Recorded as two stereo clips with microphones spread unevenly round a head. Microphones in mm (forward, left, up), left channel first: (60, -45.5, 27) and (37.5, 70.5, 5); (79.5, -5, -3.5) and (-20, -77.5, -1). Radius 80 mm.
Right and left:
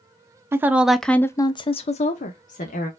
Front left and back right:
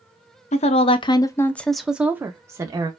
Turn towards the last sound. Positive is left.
turn(degrees=-85)